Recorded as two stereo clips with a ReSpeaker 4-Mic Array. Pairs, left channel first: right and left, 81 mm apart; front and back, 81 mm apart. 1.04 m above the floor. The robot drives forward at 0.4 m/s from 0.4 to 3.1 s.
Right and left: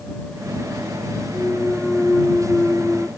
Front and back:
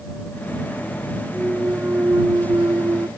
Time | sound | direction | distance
1.3 | a clunk | 145° right | ?